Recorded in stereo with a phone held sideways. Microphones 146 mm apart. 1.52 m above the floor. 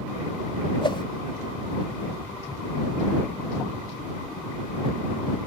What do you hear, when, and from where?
0.8 s a whoosh: 35° left (ahead or behind)